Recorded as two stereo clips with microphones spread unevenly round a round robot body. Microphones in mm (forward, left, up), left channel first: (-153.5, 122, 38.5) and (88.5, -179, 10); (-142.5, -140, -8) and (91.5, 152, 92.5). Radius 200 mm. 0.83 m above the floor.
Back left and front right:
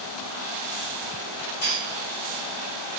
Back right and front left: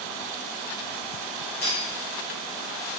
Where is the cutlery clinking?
175° left, 1.2 m.